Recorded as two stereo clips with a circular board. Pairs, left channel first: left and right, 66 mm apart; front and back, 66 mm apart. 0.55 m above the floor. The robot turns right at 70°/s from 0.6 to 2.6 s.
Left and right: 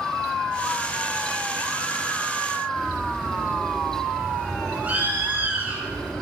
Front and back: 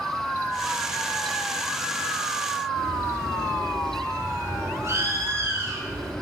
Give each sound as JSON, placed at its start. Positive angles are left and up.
{"t": 2.8, "sound": "a bird", "azimuth_deg": -150, "distance_m": 1.5}